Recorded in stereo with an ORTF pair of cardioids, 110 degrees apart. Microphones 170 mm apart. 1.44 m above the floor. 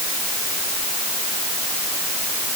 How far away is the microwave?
I don't hear a microwave.